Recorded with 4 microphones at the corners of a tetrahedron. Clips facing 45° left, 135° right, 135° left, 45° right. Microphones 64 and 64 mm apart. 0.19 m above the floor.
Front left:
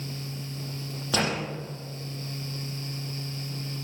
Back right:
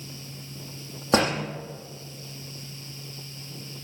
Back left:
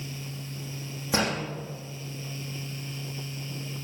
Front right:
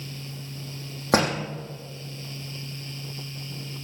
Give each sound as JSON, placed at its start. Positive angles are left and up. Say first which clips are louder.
{"t": 1.1, "sound": "a door slam", "louder": "back right 5 dB, front right 5 dB", "azimuth_deg": -80, "distance_m": 5.5}